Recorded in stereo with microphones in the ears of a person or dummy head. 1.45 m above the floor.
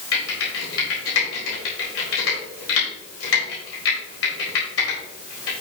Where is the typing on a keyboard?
85° left, 4.5 m.